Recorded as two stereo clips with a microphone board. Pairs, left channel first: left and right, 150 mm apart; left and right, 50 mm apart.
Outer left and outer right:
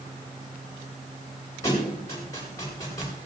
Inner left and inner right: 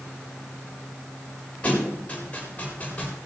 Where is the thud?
25° left (ahead or behind), 9.5 m.